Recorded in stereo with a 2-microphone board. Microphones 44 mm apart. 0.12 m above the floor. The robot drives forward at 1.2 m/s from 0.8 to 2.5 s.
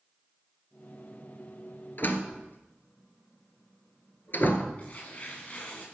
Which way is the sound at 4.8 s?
35° left (ahead or behind).